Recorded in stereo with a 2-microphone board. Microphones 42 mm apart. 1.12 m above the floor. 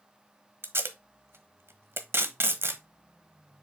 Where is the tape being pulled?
65° right (ahead or behind), 1.1 m.